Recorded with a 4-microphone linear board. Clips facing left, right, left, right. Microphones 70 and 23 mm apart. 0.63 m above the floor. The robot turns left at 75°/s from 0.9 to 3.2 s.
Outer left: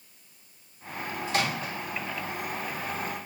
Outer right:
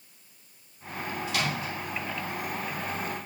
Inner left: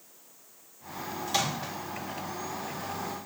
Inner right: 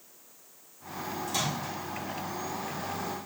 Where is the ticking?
No ticking in this recording.